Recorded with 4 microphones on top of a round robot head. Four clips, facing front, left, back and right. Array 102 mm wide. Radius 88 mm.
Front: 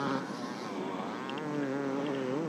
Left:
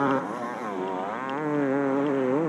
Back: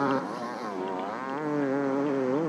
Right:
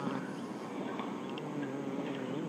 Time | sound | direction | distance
0.0 | a motorcycle | 120° left | ?